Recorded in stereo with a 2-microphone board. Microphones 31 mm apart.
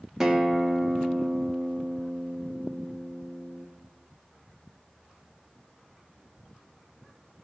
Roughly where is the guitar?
Centre.